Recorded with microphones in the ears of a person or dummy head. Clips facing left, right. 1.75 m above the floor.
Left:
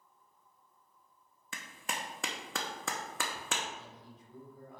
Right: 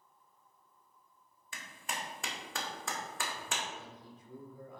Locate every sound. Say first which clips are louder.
1.5 s a clap: left 1 dB; 50° left (ahead or behind), 1.0 m
3.7 s a man speaking: right 1 dB; 75° right (ahead or behind), 1.7 m